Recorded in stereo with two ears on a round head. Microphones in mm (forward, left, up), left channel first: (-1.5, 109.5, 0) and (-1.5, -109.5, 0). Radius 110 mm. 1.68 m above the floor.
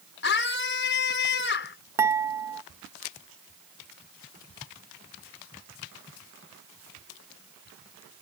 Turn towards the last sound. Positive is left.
turn(degrees=-10)  # may be behind; listen again after turning